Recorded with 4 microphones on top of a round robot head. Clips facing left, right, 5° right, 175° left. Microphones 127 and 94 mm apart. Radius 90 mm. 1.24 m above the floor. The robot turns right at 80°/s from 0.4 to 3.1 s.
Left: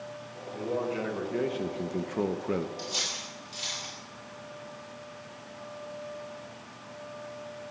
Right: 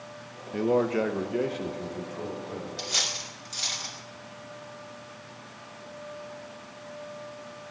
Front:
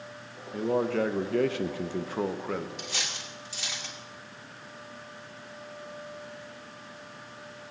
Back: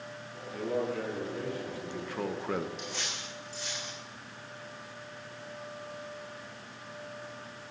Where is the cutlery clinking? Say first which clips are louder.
Right 1 dB, front 1 dB; 60° right, 2.0 m; by 4.0 s 35° right, 2.0 m.